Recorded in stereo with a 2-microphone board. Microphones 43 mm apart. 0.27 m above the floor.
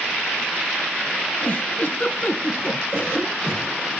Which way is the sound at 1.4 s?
35° left (ahead or behind).